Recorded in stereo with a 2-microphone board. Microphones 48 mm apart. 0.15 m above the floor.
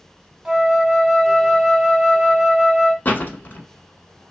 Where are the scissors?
I don't hear scissors.